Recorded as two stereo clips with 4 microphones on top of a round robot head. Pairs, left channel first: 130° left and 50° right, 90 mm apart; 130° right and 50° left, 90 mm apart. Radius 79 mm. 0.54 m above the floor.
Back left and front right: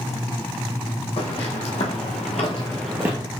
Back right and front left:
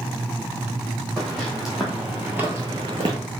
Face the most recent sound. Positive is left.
turn(degrees=5)